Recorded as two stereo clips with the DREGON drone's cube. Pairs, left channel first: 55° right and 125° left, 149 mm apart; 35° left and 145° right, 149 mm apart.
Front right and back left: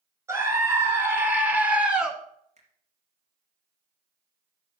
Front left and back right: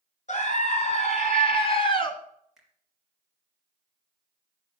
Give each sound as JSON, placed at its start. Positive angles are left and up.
{"t": 0.3, "sound": "a scream", "azimuth_deg": 55, "distance_m": 2.0}
{"t": 2.6, "sound": "a finger snap", "azimuth_deg": 130, "distance_m": 2.0}